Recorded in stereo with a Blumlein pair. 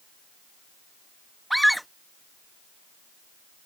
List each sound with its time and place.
1.5 s a scream: straight ahead